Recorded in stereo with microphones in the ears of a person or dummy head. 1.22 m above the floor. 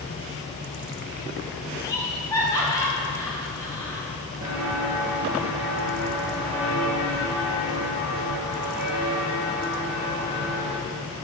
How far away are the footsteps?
About 1.4 m.